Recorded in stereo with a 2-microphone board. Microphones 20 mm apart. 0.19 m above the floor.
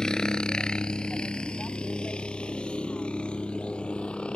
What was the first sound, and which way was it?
A helicopter, 45° left (ahead or behind).